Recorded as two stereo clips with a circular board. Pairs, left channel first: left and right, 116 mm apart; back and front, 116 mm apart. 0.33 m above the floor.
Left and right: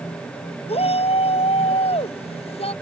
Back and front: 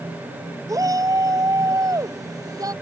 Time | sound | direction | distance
0.7 | a shout | 60° left | ?